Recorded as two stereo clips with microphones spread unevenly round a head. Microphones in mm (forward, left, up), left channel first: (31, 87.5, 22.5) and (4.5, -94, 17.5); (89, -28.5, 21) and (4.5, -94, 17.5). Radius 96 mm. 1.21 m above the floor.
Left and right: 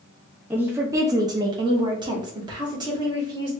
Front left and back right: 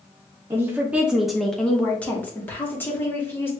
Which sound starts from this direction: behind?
A woman speaking, at 0.5 s.